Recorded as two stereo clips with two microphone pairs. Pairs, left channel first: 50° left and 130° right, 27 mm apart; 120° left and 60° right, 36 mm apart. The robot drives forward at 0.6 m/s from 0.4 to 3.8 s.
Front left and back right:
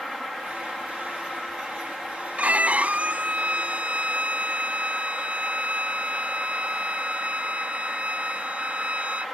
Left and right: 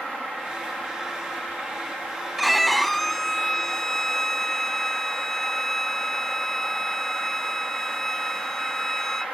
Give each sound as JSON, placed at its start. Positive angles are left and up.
{"t": 2.4, "sound": "a violin", "azimuth_deg": -150}